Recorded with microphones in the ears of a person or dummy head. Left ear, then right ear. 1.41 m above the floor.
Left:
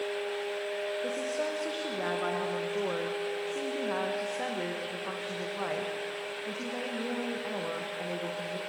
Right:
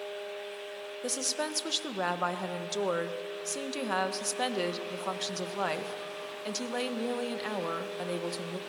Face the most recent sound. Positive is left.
turn(degrees=-80)